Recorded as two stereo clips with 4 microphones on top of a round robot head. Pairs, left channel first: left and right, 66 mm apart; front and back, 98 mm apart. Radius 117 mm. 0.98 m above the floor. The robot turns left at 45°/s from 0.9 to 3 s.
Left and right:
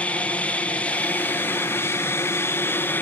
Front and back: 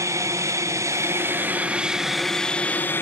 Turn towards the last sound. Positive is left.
turn(degrees=55)